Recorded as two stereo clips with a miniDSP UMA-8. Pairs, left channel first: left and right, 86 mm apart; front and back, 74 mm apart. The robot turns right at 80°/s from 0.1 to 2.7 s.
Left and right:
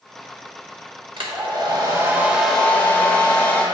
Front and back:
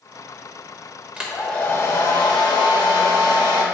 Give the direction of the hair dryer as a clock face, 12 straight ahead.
4 o'clock.